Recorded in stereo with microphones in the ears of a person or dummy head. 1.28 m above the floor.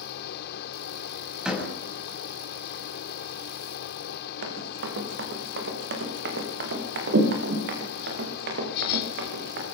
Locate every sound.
0.0 s a fan: 60° left (ahead or behind), 1.7 m
1.4 s a door slam: 5° right (ahead or behind), 7.5 m
4.4 s running footsteps: 75° right (ahead or behind), 6 m; by 9.7 s 65° right (ahead or behind), 8 m